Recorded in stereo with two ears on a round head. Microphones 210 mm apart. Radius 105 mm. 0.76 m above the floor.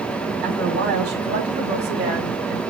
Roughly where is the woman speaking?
Right.